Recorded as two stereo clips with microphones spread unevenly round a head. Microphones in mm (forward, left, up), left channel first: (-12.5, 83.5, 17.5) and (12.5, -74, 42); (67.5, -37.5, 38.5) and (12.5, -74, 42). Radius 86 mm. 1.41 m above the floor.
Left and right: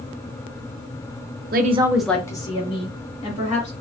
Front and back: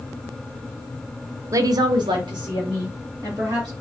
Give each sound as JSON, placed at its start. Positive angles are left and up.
{"t": 1.5, "sound": "a woman speaking", "azimuth_deg": -105, "distance_m": 0.6}